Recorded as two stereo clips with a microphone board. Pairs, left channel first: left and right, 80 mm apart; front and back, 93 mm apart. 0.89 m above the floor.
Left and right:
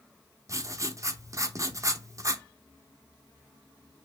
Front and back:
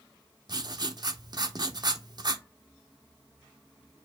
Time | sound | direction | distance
0.5 | writing | 140° right | 0.5 m